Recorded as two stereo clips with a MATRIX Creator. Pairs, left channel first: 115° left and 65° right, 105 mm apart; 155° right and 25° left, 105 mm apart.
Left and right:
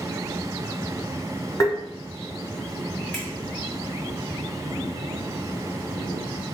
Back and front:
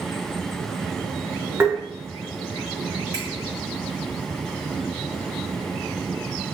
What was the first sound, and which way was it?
Tapping, 80° left.